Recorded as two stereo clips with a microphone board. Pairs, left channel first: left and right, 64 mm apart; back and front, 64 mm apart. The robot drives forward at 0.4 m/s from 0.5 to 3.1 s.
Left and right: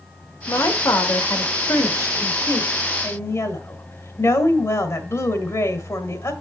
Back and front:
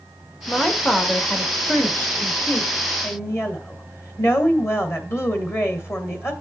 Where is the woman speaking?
105° left, 1.6 m; by 6.3 s 135° left, 2 m.